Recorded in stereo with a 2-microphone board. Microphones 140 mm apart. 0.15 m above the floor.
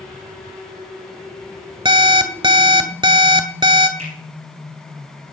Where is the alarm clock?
35° right (ahead or behind), 1.0 m.